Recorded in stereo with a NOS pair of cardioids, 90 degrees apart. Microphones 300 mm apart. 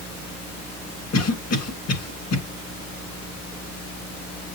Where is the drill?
No drill in this recording.